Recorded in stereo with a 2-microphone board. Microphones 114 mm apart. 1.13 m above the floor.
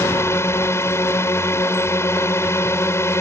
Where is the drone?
25° left (ahead or behind).